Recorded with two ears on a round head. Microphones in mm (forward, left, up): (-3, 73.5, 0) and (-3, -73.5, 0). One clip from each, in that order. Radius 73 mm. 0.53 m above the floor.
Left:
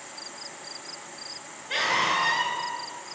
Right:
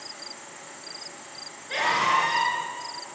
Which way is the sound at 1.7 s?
20° left (ahead or behind).